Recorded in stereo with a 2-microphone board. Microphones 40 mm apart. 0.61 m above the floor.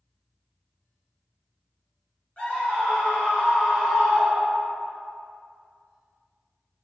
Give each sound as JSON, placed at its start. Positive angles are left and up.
{"t": 2.4, "sound": "a scream", "side_deg": 35, "distance_m": 1.9}